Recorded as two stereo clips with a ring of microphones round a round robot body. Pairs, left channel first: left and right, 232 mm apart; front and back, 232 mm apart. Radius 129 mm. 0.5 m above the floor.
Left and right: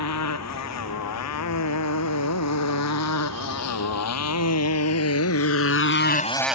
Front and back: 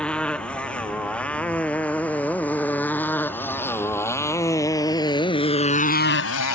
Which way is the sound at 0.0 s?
85° left.